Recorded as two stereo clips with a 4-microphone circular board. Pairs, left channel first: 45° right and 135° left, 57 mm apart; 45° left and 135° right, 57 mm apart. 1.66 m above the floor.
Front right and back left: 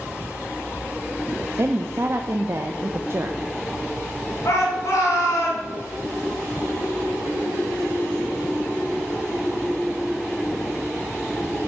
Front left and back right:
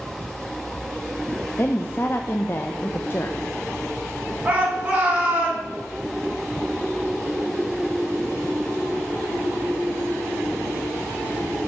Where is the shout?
70° right, 3.5 m.